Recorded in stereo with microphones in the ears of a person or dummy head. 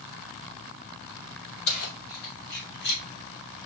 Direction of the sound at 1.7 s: 80° left.